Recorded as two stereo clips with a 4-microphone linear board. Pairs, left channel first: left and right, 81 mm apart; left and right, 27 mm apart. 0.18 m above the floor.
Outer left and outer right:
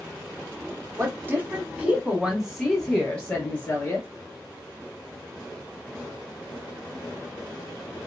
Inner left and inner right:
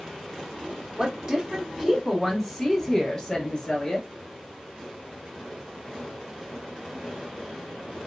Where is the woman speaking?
30° right (ahead or behind), 1.3 m; by 4.1 s 25° left (ahead or behind), 1.7 m.